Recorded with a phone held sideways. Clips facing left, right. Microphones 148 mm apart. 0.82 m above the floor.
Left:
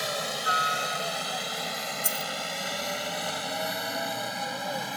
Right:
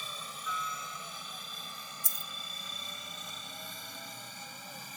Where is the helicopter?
70° left (ahead or behind); by 5.0 s 65° left (ahead or behind).